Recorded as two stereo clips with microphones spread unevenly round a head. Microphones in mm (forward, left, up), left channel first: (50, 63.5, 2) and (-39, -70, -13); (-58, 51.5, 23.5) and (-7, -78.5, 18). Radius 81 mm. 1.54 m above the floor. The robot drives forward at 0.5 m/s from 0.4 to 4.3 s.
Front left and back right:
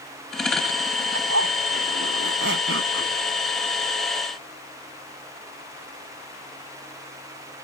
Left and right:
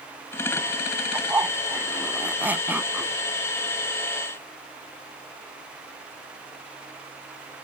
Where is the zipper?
145° right; by 3.2 s 150° right.